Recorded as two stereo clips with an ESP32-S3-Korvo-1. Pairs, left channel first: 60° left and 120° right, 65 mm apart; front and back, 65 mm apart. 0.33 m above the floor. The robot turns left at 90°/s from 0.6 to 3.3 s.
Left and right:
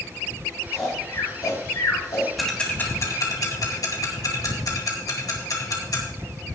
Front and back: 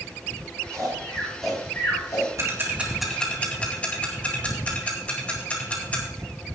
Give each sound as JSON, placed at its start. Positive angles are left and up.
{"t": 0.7, "sound": "snoring", "azimuth_deg": 155, "distance_m": 7.5}
{"t": 2.4, "sound": "ticking", "azimuth_deg": 150, "distance_m": 2.5}